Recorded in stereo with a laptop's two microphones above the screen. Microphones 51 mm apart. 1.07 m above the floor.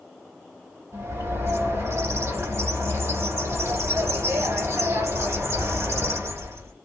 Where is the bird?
70° right (ahead or behind), 2.5 m.